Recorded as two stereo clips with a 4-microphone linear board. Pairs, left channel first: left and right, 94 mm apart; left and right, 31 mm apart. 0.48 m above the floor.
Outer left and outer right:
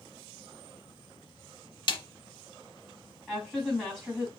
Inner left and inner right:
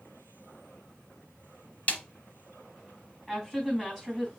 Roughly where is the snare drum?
Left.